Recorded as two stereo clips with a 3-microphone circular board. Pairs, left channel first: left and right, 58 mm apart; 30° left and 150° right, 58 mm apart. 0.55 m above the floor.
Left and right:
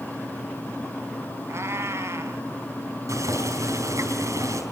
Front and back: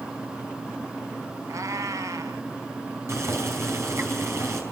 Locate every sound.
1.5 s a cat meowing: 125° right, 1.7 m
3.1 s boiling: 110° right, 5 m